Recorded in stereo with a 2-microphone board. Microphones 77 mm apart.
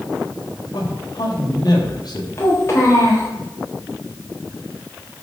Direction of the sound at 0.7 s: 60° left (ahead or behind).